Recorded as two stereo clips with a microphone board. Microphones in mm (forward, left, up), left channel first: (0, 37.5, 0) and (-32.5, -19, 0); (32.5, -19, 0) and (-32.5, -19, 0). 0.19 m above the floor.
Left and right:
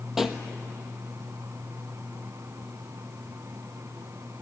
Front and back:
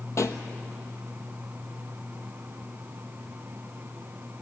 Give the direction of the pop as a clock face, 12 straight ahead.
1 o'clock.